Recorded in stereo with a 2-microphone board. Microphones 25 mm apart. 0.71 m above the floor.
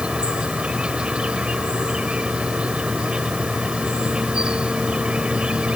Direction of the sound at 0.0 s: 50° right (ahead or behind).